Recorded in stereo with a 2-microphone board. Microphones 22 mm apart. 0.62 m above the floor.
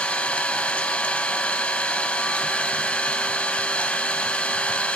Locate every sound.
0.0 s an engine running: 75° left (ahead or behind), 2.5 m